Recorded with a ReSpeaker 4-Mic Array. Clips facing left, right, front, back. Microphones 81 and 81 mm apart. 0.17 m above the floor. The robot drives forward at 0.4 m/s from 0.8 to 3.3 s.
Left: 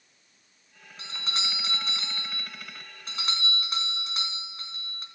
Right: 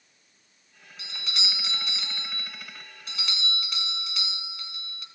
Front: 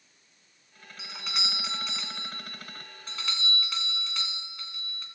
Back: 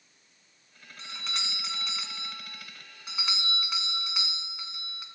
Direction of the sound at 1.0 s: 80° left.